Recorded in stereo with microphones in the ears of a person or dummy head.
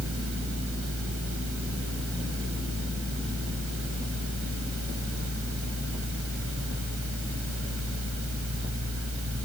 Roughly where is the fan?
Right.